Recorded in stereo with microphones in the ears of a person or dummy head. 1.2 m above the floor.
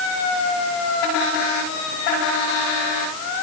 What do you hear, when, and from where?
Only background noise.